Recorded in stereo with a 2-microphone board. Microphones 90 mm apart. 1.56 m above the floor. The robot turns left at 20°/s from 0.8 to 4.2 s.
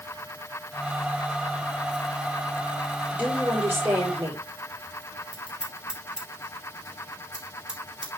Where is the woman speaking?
10° right (ahead or behind), 5.5 m; by 4.4 s 35° right (ahead or behind), 5.5 m.